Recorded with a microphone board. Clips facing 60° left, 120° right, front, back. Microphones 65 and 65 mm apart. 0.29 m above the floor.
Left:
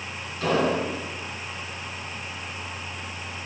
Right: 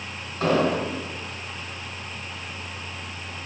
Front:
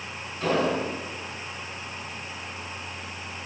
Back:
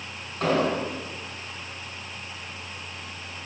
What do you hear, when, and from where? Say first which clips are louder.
0.4 s an explosion: right 1 dB, back 1 dB; 155° right, 3 m